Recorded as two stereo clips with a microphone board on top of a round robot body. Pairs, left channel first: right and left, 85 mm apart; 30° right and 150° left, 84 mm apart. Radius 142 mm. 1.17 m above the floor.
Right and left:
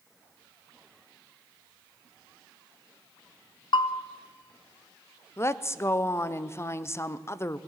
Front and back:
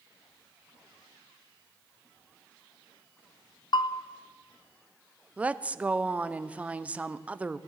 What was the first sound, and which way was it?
A bell, 65° right.